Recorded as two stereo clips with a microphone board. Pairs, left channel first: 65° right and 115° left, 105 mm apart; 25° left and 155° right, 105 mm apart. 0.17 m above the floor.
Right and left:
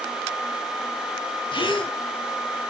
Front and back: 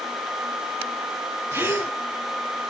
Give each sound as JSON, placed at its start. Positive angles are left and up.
{"t": 1.5, "sound": "a gasp", "azimuth_deg": -90, "distance_m": 2.5}